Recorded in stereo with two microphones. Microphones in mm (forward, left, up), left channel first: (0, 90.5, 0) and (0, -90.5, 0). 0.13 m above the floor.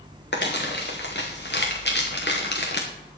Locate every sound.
0.3 s crumpling: 70° left (ahead or behind), 3.5 m